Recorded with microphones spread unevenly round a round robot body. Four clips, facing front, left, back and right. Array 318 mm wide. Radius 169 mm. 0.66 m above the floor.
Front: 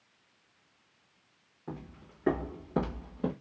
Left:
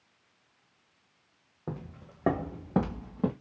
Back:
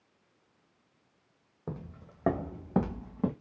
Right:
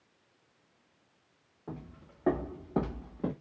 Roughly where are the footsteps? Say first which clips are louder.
Left 4 dB, back 1 dB; behind left.